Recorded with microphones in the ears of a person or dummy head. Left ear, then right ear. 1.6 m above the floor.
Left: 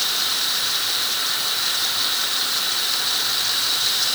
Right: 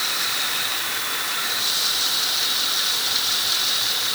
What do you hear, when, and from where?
Only background noise.